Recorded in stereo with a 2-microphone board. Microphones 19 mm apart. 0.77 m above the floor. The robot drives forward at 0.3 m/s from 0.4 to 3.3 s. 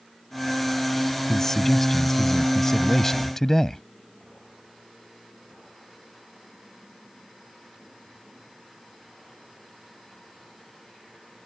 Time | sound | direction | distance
1.3 | a man speaking | 20° left (ahead or behind) | ?